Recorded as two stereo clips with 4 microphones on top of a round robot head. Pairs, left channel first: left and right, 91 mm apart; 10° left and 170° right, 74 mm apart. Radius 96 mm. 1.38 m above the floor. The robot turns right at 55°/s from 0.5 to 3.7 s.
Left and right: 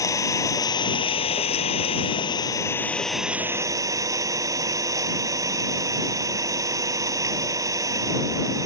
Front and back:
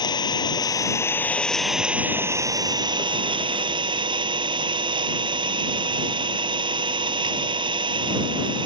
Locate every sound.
0.0 s an engine running: 35° left; by 8.7 s 150° right